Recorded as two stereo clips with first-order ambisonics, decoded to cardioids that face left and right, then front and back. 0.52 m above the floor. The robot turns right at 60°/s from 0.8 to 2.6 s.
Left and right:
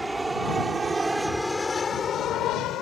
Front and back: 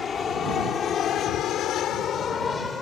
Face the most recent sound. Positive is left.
turn(degrees=65)